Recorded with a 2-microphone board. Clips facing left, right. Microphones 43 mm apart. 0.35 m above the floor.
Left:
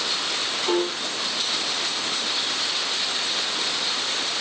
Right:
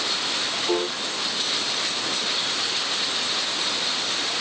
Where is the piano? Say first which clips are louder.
Left 2 dB; 25° left (ahead or behind), 1.2 m.